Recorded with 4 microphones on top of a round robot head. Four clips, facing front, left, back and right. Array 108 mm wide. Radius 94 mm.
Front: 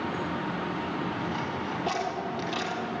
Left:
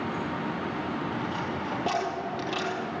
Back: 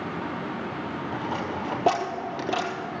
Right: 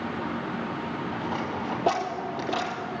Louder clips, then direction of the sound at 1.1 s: Right 1 dB, back 2 dB; 170° right.